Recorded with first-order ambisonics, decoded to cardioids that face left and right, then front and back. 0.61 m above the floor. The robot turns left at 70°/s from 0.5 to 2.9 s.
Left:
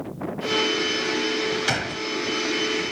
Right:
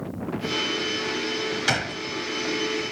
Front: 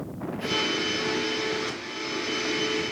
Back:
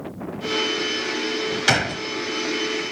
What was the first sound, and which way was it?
A gunshot, 175° right.